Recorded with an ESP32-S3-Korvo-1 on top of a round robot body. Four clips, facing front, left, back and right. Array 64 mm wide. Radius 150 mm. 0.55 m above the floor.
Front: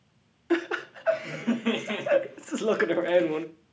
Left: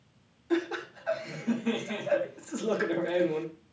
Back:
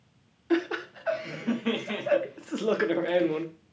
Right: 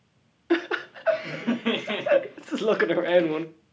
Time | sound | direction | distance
0.5 | laughter | 70° right | 1.1 m